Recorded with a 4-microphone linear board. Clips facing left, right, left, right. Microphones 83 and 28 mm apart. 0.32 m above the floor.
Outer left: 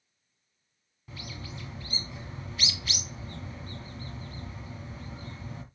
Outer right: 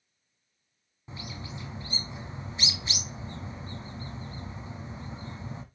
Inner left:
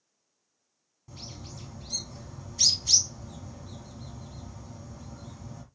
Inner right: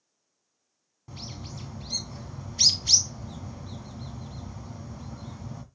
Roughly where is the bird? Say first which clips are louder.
Outer right 2 dB, inner right 3 dB; right.